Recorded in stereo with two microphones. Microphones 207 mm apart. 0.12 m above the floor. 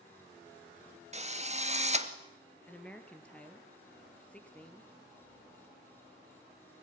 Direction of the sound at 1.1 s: 30° right (ahead or behind).